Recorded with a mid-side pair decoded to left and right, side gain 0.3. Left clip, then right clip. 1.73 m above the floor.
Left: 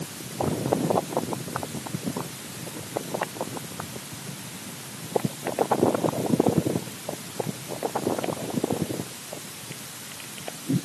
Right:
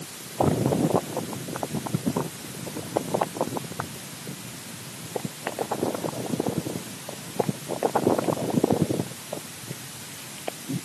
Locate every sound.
Only background noise.